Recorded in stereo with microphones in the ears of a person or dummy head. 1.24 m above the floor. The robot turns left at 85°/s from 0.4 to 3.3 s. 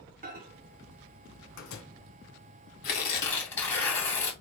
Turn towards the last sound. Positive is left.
turn(degrees=15)